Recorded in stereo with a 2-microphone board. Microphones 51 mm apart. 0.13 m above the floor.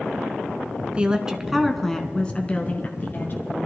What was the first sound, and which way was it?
A woman speaking, 20° right (ahead or behind).